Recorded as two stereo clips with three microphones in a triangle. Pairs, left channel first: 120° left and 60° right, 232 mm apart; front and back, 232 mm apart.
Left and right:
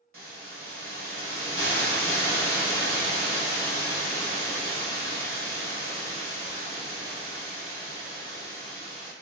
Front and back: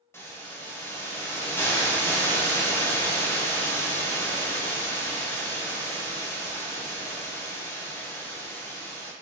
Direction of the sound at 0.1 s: 80° right.